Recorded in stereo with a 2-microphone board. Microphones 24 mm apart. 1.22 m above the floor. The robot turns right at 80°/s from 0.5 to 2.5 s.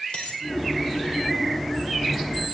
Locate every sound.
0.1 s a dropped coin: 65° left (ahead or behind), 2 m